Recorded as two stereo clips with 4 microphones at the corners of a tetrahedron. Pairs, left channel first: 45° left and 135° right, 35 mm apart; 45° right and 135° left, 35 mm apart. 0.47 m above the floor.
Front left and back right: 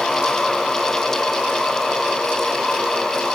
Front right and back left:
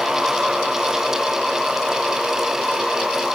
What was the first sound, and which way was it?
Only background noise.